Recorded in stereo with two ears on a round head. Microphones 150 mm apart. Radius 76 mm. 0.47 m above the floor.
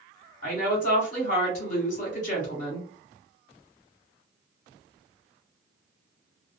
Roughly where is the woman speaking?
Left.